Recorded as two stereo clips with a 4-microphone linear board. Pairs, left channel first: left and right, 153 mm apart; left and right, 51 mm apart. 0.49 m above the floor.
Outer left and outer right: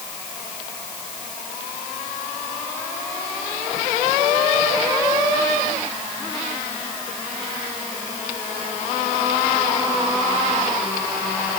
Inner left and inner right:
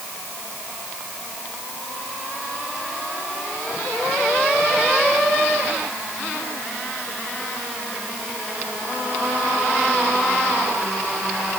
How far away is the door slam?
I don't hear a door slam.